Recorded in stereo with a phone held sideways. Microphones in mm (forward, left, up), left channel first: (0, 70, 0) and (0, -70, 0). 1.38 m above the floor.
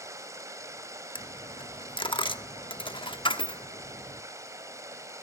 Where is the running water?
20° right (ahead or behind), 3 m.